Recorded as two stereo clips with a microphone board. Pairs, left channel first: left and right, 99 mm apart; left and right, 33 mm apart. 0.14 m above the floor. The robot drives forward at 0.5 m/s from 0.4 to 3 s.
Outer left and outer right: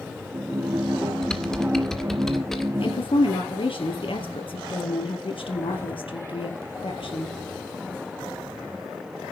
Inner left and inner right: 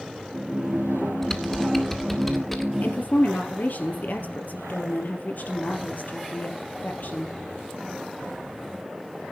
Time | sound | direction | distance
1.2 | typing on a keyboard | 5° left (ahead or behind) | 1.8 m
2.8 | a woman speaking | 70° left (ahead or behind) | 3 m